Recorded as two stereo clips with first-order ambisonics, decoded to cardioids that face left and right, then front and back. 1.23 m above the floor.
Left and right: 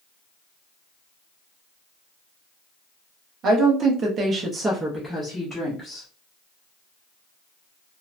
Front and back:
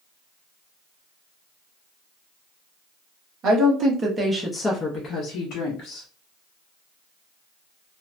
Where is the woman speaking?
140° right, 0.8 m; by 6.1 s 20° left, 1.0 m.